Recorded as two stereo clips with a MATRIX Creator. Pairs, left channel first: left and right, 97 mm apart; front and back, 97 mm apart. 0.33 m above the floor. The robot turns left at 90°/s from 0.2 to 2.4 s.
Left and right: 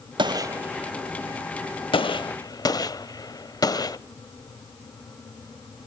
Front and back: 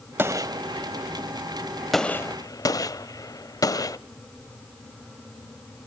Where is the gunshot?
115° right, 0.6 m; by 4.0 s 45° left, 0.6 m.